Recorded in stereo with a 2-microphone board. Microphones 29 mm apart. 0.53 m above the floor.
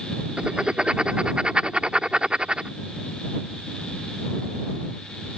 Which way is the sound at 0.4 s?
40° right (ahead or behind).